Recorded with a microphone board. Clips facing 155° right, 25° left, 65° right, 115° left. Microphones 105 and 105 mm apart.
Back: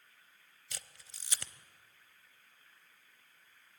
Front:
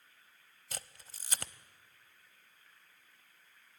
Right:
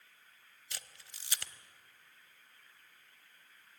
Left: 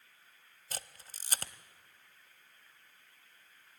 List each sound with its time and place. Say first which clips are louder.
0.7 s a camera shutter: front 5 dB, left 6 dB; 65° left, 0.5 m